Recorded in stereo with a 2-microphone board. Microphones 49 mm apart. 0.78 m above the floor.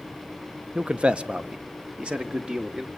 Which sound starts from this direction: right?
A man speaking, at 0.8 s.